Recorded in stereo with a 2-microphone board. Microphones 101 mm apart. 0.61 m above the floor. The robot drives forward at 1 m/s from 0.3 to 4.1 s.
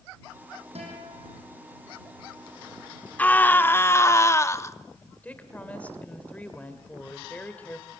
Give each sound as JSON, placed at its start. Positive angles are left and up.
{"t": 0.8, "sound": "a guitar", "side_deg": -85, "distance_m": 7.0}
{"t": 3.2, "sound": "a scream", "side_deg": 15, "distance_m": 1.4}
{"t": 5.2, "sound": "a woman speaking", "side_deg": 15, "distance_m": 2.5}